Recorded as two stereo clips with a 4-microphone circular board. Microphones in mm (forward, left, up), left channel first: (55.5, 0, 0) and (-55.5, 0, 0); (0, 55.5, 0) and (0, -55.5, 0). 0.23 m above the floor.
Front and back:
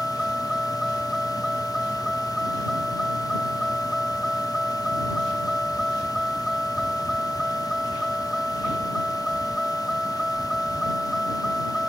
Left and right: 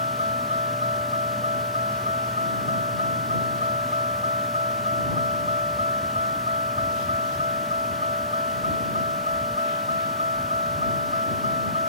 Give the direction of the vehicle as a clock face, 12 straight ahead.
3 o'clock.